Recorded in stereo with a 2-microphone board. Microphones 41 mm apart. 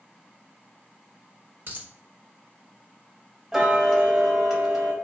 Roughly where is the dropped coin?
Right.